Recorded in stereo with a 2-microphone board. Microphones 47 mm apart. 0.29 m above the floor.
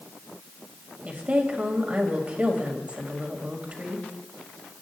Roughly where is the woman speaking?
Right.